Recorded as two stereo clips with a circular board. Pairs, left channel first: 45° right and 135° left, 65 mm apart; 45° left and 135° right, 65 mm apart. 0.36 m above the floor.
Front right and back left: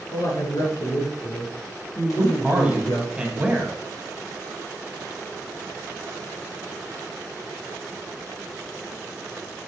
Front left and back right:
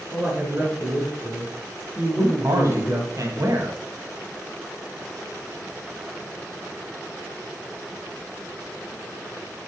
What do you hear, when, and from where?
0.1 s a man speaking: 75° right, 4 m
2.2 s a man speaking: 150° right, 1.8 m